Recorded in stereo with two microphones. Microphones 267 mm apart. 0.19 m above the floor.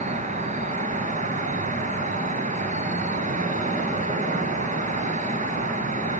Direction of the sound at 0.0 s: 30° right (ahead or behind).